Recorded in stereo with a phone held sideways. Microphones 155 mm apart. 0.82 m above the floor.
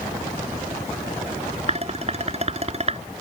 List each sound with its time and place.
1.7 s dishes clattering: 45° right (ahead or behind)